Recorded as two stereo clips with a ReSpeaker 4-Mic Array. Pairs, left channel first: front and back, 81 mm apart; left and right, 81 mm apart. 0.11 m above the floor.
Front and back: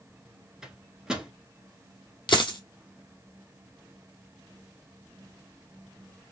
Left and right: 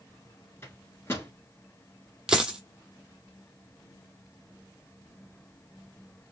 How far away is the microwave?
About 1.2 m.